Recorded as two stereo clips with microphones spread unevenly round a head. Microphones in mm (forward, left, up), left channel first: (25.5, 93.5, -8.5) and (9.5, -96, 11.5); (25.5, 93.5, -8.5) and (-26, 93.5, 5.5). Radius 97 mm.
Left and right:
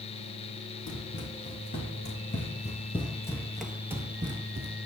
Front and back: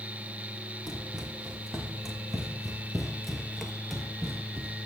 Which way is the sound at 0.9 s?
110° left.